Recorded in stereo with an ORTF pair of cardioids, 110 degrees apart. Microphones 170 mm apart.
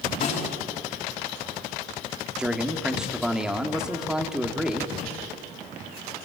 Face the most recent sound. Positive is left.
turn(degrees=-5)